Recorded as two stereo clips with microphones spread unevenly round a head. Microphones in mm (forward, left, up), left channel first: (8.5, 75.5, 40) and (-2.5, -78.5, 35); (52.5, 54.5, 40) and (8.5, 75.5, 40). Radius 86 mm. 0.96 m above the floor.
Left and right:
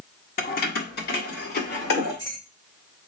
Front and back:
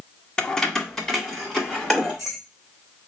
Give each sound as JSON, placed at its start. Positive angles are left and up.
{"t": 0.4, "sound": "keys jangling", "azimuth_deg": 50, "distance_m": 0.8}